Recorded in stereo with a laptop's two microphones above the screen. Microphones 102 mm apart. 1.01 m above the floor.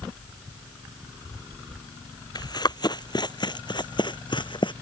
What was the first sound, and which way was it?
Running footsteps, 40° left (ahead or behind).